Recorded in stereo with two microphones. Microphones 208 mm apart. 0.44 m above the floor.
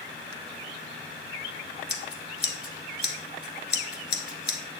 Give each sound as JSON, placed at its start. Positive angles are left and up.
{"t": 1.9, "sound": "scissors", "side_deg": 55, "distance_m": 1.2}